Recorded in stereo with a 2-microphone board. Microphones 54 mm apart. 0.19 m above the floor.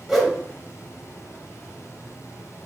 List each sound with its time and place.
0.1 s a whoosh: 5° left (ahead or behind), 2.5 m